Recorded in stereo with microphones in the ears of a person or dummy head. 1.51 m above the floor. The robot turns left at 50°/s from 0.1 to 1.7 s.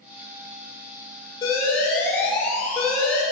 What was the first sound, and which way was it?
An alarm, 20° left (ahead or behind).